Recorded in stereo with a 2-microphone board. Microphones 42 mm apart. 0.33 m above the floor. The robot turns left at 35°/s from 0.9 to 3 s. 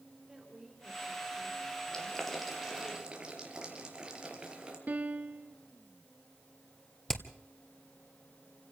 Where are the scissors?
I don't hear scissors.